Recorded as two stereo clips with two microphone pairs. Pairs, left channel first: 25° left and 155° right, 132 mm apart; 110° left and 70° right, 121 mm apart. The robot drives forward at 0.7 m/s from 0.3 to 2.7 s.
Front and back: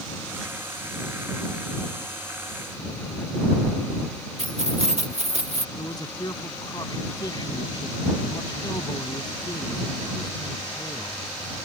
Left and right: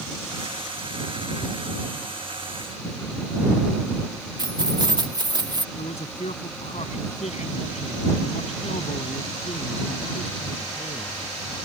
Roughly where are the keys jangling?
Behind right.